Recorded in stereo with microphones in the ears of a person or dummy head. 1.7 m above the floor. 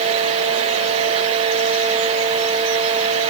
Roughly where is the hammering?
No hammering in this recording.